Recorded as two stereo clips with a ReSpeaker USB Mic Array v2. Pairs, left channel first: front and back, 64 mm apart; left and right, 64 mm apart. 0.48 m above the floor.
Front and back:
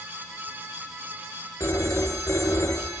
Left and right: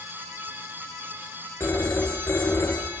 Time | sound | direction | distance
1.6 | a phone ringing | 35° left | 5 m